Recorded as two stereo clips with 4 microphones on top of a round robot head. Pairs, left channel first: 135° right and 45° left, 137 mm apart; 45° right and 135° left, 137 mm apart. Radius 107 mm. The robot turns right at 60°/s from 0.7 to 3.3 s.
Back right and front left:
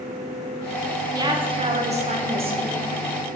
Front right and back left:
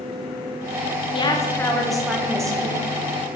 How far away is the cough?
No cough in this recording.